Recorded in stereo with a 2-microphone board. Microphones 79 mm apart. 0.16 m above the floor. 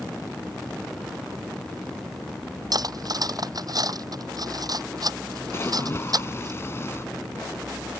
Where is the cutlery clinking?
55° right (ahead or behind).